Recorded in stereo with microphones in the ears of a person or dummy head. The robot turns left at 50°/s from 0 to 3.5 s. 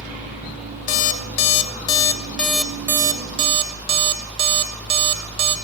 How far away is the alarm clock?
About 0.8 m.